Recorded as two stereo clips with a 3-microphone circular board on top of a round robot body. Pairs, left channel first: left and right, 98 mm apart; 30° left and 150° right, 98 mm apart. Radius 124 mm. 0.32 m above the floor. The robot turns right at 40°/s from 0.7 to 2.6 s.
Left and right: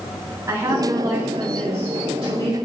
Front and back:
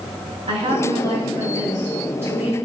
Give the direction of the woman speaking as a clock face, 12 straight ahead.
5 o'clock.